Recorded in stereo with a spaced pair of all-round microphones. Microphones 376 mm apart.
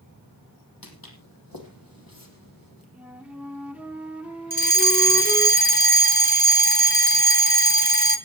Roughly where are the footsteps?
Left.